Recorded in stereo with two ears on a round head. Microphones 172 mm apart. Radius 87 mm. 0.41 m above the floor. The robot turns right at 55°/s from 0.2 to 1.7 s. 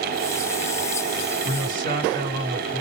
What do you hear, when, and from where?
1.4 s a man speaking: 40° right (ahead or behind), 2 m; by 2.8 s 45° right (ahead or behind), 2 m